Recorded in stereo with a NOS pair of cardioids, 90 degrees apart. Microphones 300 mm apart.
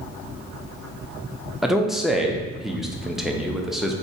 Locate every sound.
1.6 s a man speaking: straight ahead, 0.5 m